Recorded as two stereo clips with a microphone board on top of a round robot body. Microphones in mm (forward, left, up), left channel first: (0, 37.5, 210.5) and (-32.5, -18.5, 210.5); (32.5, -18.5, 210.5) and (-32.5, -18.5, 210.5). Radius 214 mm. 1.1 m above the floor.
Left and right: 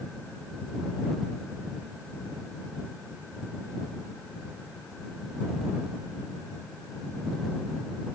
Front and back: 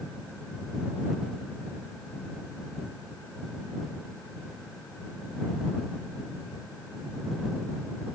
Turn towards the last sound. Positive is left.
No sound to turn to.